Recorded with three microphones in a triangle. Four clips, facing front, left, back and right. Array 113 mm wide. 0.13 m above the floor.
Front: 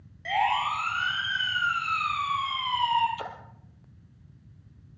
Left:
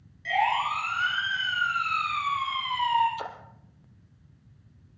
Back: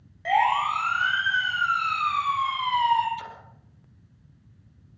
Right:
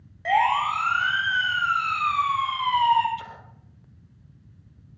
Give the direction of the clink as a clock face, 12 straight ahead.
No clink in this recording.